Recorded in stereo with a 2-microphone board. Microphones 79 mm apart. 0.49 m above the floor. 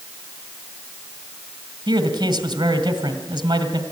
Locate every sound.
1.9 s a man speaking: 65° right (ahead or behind), 2.5 m